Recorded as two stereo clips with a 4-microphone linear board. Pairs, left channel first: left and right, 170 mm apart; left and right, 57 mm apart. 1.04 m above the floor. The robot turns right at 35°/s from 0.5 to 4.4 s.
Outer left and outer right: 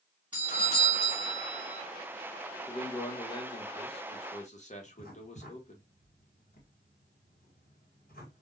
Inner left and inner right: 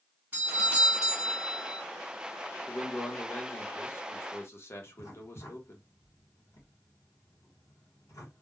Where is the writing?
60° left (ahead or behind), 1.5 m.